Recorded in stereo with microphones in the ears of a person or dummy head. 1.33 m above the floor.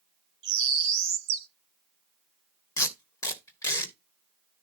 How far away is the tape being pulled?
About 1.9 m.